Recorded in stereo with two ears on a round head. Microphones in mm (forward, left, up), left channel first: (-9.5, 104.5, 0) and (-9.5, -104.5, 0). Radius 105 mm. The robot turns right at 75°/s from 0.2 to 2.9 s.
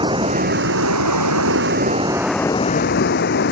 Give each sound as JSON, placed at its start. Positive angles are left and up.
{"t": 0.0, "sound": "running water", "azimuth_deg": -160}